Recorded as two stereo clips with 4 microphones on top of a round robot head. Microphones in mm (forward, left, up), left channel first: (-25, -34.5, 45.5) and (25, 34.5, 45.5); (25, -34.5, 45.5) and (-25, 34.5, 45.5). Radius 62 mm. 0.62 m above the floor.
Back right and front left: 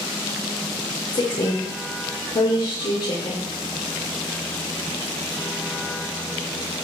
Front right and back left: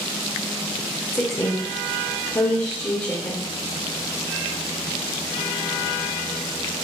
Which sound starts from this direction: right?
A woman speaking, at 1.1 s.